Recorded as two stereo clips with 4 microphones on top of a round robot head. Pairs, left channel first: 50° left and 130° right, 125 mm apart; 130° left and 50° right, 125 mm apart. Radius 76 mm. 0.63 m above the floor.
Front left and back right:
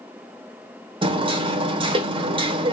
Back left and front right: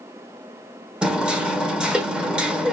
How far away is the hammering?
About 1.0 m.